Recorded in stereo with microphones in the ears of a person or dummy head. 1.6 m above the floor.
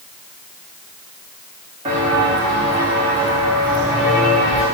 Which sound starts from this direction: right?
Footsteps, at 1.9 s.